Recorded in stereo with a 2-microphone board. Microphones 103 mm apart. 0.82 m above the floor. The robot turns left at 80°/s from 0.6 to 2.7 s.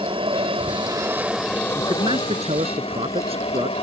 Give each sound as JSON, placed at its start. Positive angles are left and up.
{"t": 0.0, "sound": "an aircraft", "azimuth_deg": -115}
{"t": 1.8, "sound": "a man speaking", "azimuth_deg": -35}